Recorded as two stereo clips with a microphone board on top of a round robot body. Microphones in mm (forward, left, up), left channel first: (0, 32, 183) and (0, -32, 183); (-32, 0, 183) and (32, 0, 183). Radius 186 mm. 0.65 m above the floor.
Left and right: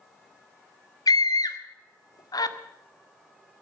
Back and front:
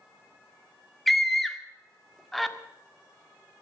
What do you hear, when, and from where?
1.1 s a scream: 90° left, 1.8 m